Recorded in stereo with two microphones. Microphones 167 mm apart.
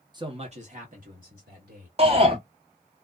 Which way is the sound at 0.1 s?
25° right (ahead or behind).